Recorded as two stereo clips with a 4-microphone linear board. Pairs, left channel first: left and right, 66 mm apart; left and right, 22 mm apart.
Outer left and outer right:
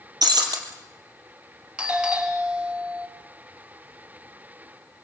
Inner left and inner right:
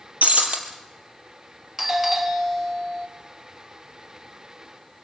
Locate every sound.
0.2 s breaking glass: 70° right (ahead or behind), 3.5 m
1.8 s a doorbell: 15° right (ahead or behind), 1.3 m